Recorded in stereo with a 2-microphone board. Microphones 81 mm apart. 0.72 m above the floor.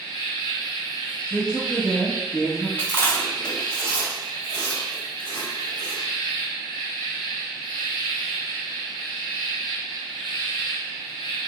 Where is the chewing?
30° right (ahead or behind), 1.4 m.